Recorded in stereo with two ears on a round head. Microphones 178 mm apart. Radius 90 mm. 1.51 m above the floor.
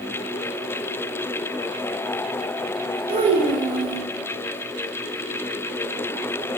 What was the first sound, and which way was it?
A child speaking, 25° right (ahead or behind).